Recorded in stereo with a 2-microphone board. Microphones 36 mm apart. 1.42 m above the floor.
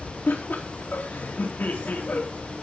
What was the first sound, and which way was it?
Laughter, 60° left (ahead or behind).